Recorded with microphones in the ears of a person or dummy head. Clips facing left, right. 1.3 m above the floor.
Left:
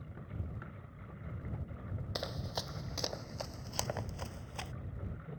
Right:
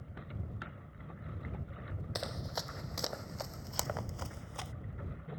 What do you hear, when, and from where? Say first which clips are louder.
2.1 s running footsteps: even; centre (ahead or behind)